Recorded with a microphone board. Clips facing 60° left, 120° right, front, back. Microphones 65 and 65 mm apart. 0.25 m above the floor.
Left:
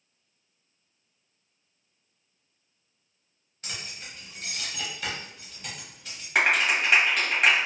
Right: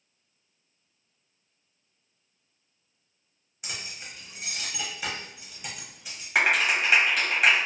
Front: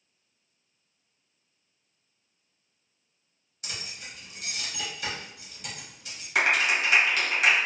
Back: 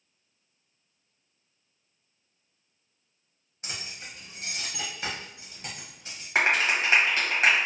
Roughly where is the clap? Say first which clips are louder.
Even, even; behind left.